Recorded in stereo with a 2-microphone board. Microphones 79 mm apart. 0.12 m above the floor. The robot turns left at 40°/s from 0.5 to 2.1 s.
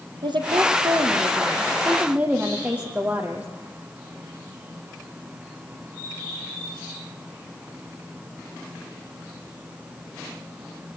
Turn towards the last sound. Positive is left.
turn(degrees=-160)